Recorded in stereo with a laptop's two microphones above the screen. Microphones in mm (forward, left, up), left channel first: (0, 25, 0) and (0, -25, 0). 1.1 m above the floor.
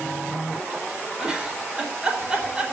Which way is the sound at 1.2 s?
15° right (ahead or behind).